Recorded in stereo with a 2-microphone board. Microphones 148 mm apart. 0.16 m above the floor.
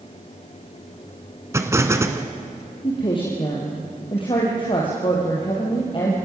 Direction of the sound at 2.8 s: 35° left (ahead or behind).